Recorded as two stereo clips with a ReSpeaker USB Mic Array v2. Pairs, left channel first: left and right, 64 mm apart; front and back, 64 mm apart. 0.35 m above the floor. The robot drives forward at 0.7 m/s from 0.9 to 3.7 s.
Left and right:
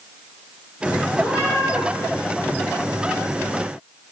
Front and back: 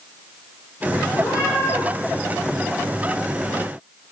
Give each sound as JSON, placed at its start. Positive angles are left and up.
{"t": 1.1, "sound": "a cat meowing", "azimuth_deg": -20, "distance_m": 6.0}